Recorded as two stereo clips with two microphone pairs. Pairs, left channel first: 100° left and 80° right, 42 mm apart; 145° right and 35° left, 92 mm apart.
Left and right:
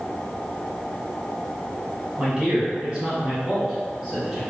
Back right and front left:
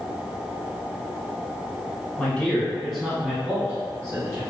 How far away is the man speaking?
About 1.6 m.